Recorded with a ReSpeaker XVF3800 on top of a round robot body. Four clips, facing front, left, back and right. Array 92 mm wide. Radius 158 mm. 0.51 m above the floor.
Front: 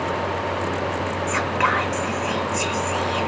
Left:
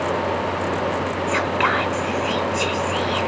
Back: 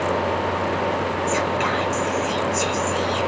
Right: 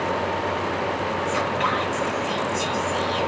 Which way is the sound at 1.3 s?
55° left.